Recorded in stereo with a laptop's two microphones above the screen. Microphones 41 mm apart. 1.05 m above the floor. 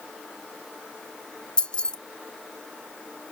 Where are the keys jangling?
20° left (ahead or behind), 0.6 m.